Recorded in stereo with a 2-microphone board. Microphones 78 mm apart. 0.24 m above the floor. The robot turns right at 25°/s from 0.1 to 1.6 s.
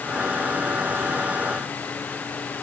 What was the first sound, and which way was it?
Only background noise.